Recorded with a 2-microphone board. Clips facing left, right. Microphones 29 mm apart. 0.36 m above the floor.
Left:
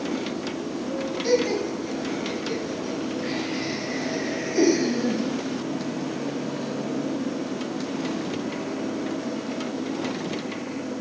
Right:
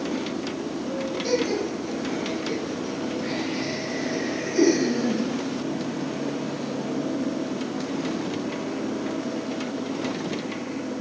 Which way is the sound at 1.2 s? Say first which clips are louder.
Left 3 dB; 30° left (ahead or behind).